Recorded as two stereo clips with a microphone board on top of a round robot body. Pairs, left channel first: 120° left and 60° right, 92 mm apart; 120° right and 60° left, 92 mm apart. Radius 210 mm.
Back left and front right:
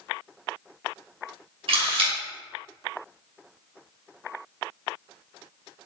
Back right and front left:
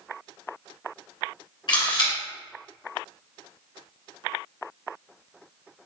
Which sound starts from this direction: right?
A camera shutter, at 1.7 s.